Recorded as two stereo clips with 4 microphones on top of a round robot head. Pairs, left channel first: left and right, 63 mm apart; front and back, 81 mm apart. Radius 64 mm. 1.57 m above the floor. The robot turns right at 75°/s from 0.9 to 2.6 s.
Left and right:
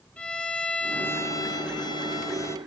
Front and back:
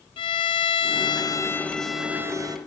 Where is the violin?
15° left, 0.5 m; by 2.6 s 140° left, 0.5 m.